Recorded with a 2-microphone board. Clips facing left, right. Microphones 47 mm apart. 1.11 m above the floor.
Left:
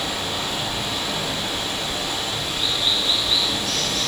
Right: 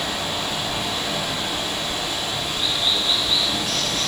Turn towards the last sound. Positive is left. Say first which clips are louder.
# even
turn(degrees=-15)  # may be behind; listen again after turning